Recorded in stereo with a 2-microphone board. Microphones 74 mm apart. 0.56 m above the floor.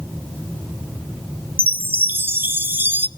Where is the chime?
30° right (ahead or behind), 0.8 m.